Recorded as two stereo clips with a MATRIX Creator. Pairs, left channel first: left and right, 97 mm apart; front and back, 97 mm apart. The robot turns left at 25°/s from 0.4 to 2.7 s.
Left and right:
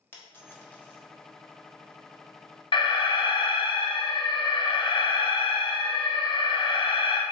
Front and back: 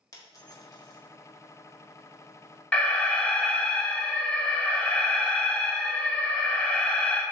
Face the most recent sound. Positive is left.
turn(degrees=70)